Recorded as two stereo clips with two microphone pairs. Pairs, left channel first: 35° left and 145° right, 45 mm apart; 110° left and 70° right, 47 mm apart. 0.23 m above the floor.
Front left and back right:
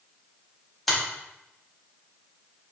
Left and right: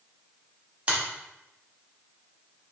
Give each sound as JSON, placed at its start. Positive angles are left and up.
{"t": 0.9, "sound": "a finger snap", "azimuth_deg": -50, "distance_m": 0.9}